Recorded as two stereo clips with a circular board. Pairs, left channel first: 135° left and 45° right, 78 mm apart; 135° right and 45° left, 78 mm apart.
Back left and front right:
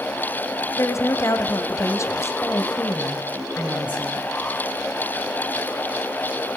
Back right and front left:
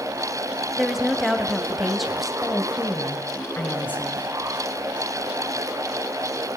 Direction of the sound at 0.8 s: 130° left.